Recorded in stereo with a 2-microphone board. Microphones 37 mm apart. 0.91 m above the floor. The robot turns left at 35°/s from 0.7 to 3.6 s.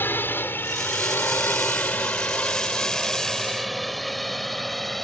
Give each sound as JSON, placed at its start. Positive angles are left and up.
{"t": 0.0, "sound": "a drone", "side_deg": 65}